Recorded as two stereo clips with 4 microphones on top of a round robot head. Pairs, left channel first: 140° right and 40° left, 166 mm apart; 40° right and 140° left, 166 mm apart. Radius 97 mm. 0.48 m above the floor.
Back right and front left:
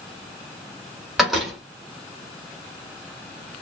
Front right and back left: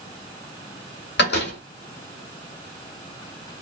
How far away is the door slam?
About 2 m.